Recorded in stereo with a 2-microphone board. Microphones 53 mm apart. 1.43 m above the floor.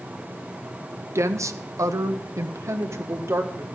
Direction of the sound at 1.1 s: 60° right (ahead or behind).